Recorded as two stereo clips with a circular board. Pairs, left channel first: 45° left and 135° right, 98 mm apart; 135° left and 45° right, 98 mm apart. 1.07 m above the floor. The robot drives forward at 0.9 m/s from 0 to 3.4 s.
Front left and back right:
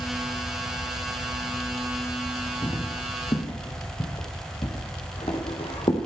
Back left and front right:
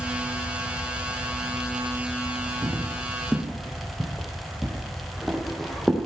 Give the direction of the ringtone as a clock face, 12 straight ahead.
I don't hear a ringtone.